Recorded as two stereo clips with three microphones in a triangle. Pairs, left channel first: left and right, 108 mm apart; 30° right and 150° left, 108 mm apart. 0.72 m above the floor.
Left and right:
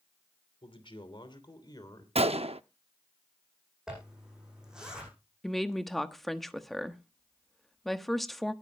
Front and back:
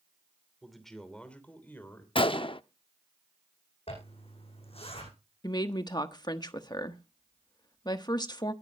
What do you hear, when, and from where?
0.6 s a man speaking: 60° left, 3 m; by 2.0 s 35° left, 3.5 m
2.1 s a gunshot: 70° right, 0.6 m
3.9 s a zipper: 5° right, 9 m
5.4 s a woman speaking: straight ahead, 1.2 m